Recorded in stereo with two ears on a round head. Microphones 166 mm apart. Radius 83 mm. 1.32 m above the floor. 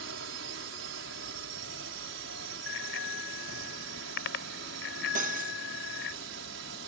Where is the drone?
75° right (ahead or behind).